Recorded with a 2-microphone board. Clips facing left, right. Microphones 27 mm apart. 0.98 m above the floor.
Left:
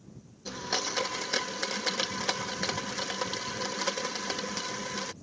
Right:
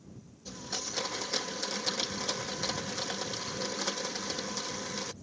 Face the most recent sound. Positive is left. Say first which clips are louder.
# left 7 dB
turn(degrees=60)  # may be behind; listen again after turning